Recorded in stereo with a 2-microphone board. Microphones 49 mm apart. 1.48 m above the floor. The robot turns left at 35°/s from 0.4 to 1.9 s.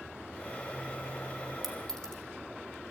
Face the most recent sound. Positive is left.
turn(degrees=10)  # may be behind; listen again after turning